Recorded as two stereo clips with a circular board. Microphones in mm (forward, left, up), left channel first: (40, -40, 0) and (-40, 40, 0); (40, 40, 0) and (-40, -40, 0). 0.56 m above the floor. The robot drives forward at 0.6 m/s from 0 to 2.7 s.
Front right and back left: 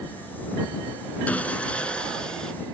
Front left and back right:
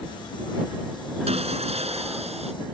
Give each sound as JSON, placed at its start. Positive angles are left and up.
{"t": 1.3, "sound": "sawing", "azimuth_deg": -120}